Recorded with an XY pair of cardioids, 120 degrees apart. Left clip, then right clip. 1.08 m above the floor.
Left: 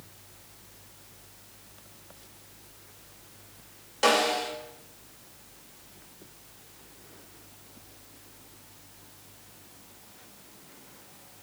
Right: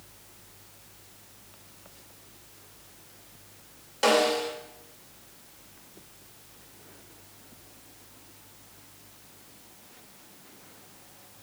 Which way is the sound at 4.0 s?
Straight ahead.